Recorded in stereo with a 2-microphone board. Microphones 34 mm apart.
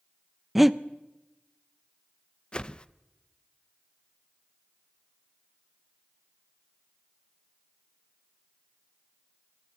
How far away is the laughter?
I don't hear laughter.